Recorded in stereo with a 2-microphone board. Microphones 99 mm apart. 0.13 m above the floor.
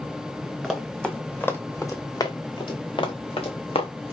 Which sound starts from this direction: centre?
Running footsteps, at 0.6 s.